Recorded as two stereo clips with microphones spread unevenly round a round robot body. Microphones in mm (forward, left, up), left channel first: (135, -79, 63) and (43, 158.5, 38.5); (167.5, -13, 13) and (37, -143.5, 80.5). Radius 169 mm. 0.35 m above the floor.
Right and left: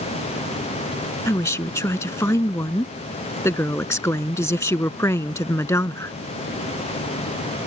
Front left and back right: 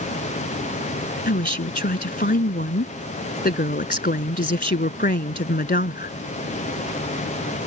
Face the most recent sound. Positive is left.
turn(degrees=10)